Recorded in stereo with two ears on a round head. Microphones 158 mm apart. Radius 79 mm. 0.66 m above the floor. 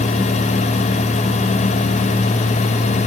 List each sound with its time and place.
Only background noise.